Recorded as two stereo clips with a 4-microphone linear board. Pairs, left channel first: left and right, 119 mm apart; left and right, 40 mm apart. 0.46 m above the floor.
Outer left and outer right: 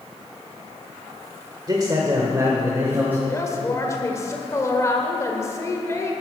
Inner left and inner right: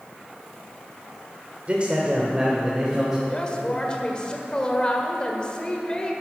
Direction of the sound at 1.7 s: 35° right (ahead or behind).